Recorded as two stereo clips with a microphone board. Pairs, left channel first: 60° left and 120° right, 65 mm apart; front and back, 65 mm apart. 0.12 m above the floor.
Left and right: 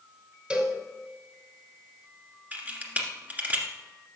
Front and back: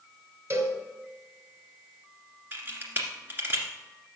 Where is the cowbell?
175° left, 2.0 m.